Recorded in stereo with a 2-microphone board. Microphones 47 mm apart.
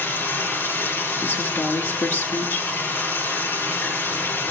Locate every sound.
0.0 s running water: 45° left (ahead or behind), 6.5 m
1.2 s a woman speaking: 60° left (ahead or behind), 1.7 m